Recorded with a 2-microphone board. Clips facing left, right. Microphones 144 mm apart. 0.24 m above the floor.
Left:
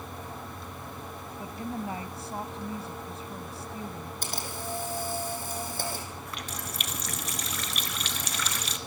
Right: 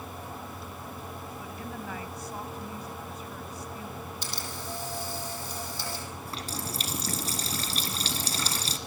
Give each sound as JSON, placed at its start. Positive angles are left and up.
{"t": 1.4, "sound": "a woman speaking", "side_deg": 30, "distance_m": 1.5}
{"t": 4.2, "sound": "a camera shutter", "side_deg": 50, "distance_m": 7.5}
{"t": 6.2, "sound": "a running tap", "side_deg": -30, "distance_m": 2.0}